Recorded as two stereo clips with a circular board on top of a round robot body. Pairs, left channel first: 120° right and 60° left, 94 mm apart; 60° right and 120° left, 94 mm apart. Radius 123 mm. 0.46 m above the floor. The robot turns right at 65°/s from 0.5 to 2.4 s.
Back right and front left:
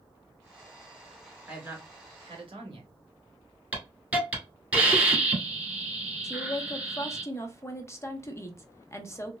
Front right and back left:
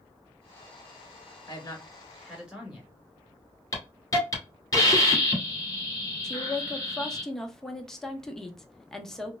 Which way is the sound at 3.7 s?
10° right.